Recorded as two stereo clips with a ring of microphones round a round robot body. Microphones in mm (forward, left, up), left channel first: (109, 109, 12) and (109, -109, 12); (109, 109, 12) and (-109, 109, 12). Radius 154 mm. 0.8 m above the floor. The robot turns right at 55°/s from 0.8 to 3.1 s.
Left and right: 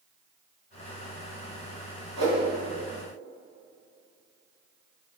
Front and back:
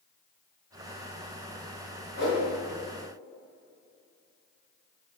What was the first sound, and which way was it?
A whoosh, 125° right.